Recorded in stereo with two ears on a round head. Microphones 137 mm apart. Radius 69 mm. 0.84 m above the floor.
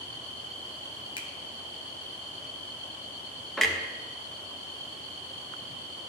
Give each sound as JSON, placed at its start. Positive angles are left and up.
{"t": 1.2, "sound": "a finger snap", "side_deg": 30, "distance_m": 0.6}
{"t": 3.6, "sound": "a clunk", "side_deg": 0, "distance_m": 0.7}